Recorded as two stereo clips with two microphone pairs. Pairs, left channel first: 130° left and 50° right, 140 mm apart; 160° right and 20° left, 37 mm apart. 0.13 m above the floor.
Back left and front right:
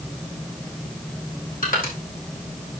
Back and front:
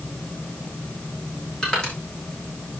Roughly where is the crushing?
Behind left.